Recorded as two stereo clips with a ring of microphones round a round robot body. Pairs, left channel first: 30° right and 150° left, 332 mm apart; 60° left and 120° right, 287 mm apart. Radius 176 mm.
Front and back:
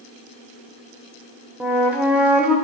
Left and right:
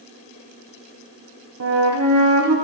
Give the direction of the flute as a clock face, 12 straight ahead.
4 o'clock.